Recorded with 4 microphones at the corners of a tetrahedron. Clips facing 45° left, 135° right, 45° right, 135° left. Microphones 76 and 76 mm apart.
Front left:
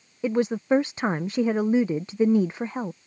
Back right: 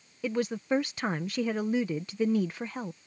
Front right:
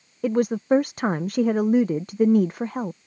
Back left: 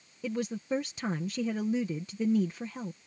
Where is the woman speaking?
15° right.